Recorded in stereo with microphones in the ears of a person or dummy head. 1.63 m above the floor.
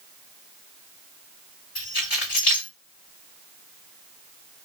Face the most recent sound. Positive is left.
turn(degrees=65)  # may be behind; listen again after turning